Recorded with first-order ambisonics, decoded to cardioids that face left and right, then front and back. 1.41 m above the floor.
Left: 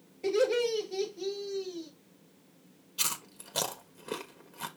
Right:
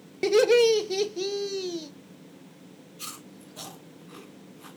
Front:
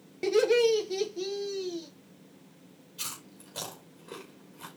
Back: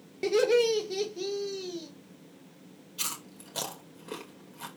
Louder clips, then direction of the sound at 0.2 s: Right 8 dB, front 1 dB; 95° right.